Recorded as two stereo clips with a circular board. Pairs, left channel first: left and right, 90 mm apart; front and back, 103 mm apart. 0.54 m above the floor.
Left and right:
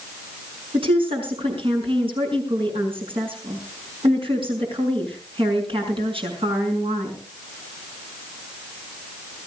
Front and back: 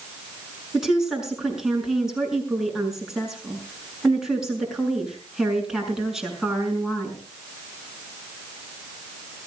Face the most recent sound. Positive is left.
turn(degrees=-95)